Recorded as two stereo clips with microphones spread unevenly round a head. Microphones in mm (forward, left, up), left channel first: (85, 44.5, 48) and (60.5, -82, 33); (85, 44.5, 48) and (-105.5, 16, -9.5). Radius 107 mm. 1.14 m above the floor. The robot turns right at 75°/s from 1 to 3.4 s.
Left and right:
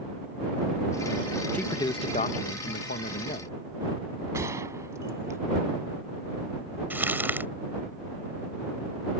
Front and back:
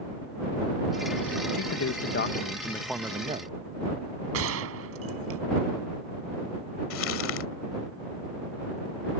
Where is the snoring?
I don't hear snoring.